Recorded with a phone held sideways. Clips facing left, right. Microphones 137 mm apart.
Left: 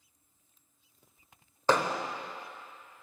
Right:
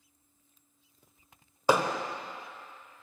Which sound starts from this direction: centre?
Hammering, at 1.7 s.